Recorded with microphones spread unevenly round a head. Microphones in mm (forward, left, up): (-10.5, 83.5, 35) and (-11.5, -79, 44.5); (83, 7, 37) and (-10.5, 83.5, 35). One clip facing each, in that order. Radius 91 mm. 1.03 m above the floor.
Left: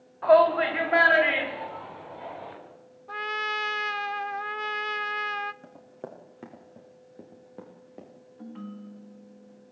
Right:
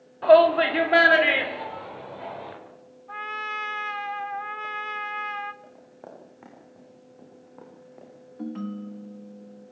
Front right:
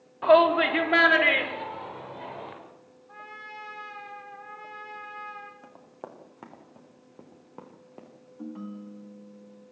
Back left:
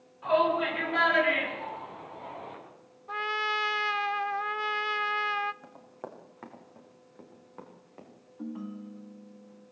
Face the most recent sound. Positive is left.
turn(degrees=-130)